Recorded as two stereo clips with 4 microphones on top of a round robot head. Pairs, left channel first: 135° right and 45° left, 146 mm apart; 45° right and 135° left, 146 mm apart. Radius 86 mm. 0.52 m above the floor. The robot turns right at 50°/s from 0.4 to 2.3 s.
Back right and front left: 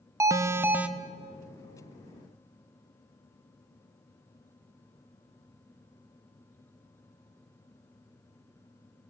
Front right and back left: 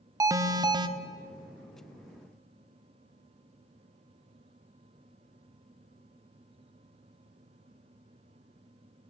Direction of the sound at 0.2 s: 95° left.